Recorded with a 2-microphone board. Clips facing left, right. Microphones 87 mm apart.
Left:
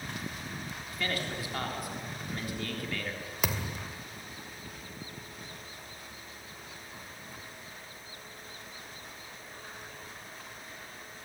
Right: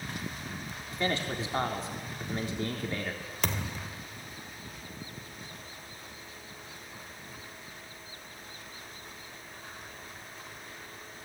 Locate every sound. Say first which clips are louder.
0.9 s a man speaking: right 4 dB; 25° right (ahead or behind), 3.5 m
3.4 s a thud: even; 5° left (ahead or behind), 2 m